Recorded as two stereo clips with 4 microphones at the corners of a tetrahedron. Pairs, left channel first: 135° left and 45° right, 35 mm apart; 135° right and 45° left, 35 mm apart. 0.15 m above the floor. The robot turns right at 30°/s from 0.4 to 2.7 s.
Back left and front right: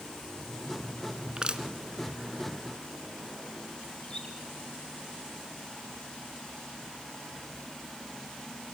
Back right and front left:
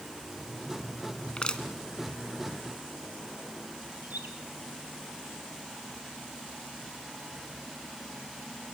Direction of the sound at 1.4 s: 95° right.